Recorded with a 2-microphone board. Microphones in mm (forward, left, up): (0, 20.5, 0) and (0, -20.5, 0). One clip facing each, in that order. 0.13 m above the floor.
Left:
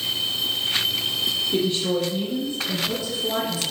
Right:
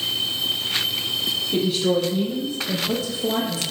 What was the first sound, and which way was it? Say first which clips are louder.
A woman speaking: right 5 dB; 5° right (ahead or behind).